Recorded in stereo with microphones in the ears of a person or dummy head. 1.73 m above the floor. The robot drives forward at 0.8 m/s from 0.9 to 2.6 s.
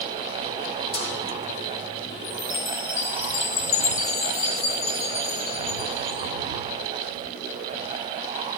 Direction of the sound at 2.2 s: 20° left (ahead or behind).